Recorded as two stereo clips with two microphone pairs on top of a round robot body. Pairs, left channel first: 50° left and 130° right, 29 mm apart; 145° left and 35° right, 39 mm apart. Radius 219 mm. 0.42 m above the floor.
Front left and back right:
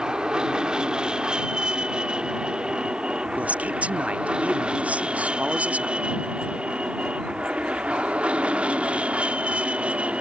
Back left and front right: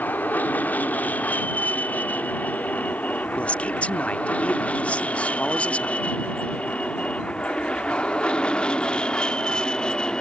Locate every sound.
0.0 s an aircraft: 170° left; by 10.2 s 155° right
3.4 s a man speaking: 165° right